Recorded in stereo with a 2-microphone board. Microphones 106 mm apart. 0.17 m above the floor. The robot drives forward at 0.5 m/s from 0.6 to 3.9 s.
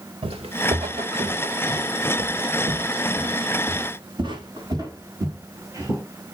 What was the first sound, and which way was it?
Footsteps, 70° right (ahead or behind).